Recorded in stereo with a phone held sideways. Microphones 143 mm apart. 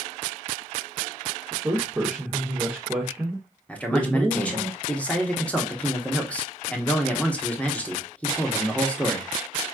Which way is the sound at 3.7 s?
10° left (ahead or behind).